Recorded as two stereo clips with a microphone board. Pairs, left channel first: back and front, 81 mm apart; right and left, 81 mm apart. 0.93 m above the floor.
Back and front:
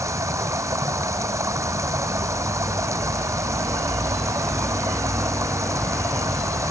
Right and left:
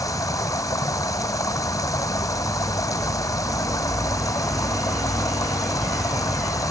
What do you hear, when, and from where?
0.0 s running water: 50° right